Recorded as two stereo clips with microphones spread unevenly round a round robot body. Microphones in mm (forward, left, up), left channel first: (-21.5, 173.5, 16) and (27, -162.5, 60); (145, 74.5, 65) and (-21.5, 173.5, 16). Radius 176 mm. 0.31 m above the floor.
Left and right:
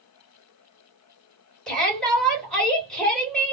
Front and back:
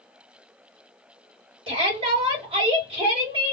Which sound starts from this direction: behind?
A shout, at 1.7 s.